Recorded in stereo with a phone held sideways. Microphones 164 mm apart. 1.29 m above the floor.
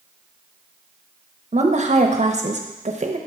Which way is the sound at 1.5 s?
45° right (ahead or behind).